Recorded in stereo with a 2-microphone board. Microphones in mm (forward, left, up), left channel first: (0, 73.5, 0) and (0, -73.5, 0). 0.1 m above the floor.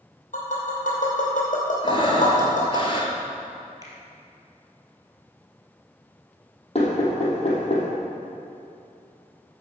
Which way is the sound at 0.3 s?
65° left (ahead or behind).